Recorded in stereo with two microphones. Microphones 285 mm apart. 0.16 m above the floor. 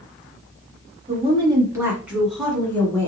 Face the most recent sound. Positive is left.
turn(degrees=10)  # may be behind; listen again after turning